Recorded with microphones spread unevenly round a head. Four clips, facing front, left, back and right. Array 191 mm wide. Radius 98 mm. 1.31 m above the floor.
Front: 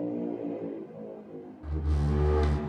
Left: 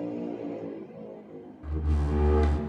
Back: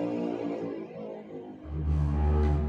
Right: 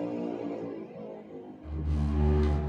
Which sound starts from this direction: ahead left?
A door slam, at 1.6 s.